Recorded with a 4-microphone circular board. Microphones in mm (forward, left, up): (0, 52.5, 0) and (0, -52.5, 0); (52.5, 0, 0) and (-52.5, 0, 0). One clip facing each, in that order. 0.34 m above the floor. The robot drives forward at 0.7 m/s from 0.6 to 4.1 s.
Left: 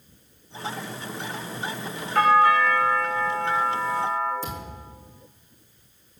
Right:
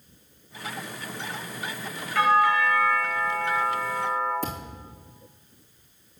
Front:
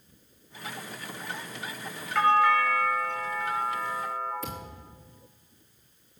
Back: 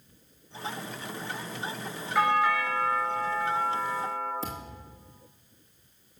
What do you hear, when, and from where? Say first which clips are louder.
2.1 s a doorbell: left 3 dB, front 3 dB; 100° left, 1.9 m; by 4.3 s 140° left, 2.5 m
4.4 s a thud: right 1 dB, back 1 dB; 120° right, 3 m